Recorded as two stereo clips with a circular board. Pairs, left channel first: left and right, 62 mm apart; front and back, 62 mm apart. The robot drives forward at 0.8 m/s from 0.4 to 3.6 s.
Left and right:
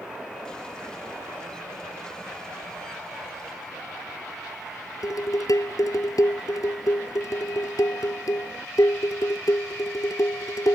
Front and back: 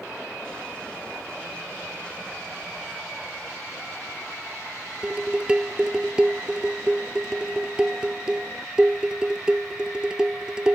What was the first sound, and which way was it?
Dishes clattering, 105° left.